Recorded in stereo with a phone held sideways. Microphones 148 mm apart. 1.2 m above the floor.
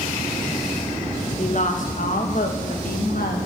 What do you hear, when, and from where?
1.4 s a woman speaking: 50° left (ahead or behind), 1.1 m; by 3.4 s 80° left, 1.8 m